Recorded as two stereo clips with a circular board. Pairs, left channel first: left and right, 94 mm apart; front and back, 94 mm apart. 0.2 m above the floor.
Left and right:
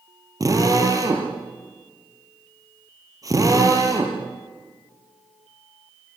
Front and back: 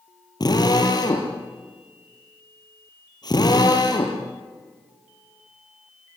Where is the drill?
40° right, 4.5 m.